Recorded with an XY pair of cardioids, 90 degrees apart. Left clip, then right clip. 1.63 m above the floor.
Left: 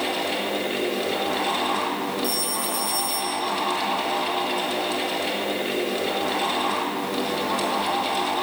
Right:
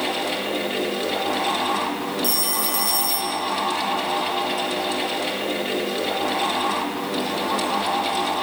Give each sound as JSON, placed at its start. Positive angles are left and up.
{"t": 0.0, "sound": "a fan", "azimuth_deg": -10, "distance_m": 2.5}
{"t": 2.2, "sound": "a phone ringing", "azimuth_deg": -60, "distance_m": 1.6}